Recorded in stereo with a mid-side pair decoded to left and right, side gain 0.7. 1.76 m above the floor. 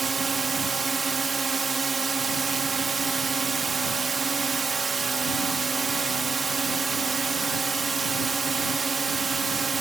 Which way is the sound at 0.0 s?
20° right.